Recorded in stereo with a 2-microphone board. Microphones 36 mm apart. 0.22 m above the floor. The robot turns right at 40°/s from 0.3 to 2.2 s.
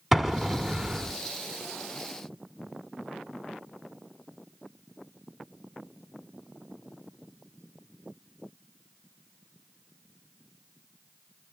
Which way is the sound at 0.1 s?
165° right.